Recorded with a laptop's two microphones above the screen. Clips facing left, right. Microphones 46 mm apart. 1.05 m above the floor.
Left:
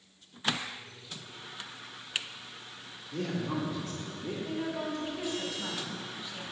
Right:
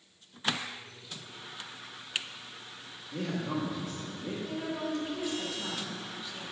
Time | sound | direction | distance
3.1 | a man speaking | 10° right (ahead or behind) | 2 m
4.5 | a woman speaking | centre (ahead or behind) | 4 m